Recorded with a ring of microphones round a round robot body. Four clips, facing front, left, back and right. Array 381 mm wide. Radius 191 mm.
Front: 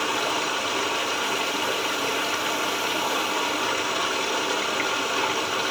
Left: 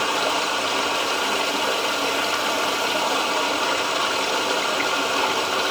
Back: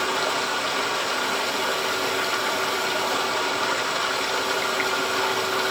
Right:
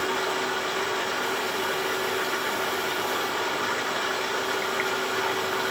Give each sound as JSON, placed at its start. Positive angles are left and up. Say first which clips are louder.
{"t": 0.0, "sound": "running water", "louder": "left 4 dB, back 1 dB", "azimuth_deg": 95, "distance_m": 1.0}